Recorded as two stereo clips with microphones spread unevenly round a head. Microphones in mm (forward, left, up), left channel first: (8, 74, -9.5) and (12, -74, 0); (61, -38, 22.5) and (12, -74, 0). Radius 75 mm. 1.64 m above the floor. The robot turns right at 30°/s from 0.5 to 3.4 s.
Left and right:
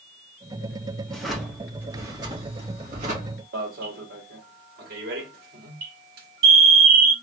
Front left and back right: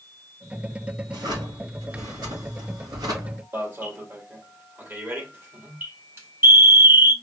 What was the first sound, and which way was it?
A drawer, 175° left.